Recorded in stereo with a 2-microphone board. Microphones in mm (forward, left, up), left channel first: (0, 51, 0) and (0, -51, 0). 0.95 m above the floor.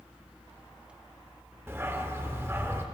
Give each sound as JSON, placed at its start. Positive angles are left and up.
{"t": 1.7, "sound": "a dog barking", "side_deg": -25, "distance_m": 0.6}